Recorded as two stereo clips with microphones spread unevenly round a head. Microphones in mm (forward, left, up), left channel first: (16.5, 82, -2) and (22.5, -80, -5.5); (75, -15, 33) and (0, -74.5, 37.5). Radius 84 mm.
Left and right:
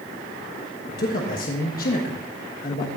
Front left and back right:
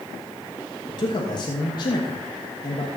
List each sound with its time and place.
0.9 s a man speaking: 70° left, 1.4 m